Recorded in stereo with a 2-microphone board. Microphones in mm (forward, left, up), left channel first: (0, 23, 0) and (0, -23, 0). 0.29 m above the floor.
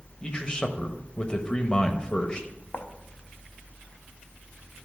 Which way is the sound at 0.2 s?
20° left (ahead or behind).